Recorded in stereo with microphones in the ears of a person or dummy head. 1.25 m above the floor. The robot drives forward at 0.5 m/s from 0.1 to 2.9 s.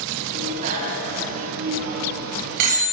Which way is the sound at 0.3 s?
35° right (ahead or behind).